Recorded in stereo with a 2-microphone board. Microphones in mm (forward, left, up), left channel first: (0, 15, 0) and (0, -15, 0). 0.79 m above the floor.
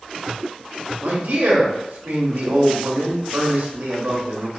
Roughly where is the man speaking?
Right.